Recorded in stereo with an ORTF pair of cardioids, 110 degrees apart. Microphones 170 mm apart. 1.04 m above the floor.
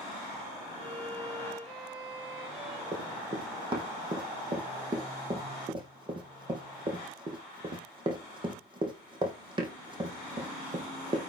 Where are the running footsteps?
25° right, 3 m.